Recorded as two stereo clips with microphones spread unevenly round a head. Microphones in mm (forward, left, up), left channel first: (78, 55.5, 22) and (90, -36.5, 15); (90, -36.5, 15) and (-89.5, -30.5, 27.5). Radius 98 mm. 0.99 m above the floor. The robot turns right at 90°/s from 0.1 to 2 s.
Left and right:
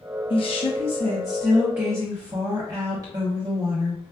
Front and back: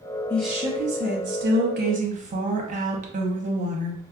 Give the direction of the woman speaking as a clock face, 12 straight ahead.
10 o'clock.